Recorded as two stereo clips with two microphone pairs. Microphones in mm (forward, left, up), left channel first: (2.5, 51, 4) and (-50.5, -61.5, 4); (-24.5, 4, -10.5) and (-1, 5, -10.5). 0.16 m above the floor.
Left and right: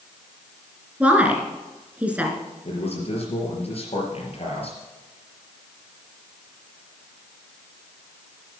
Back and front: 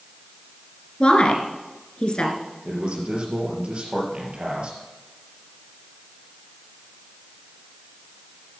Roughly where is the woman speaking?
Behind.